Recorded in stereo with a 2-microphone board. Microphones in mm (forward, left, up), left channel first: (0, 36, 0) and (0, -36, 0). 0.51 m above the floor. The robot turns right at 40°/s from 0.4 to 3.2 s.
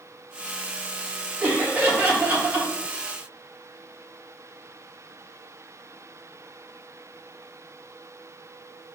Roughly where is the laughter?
Right.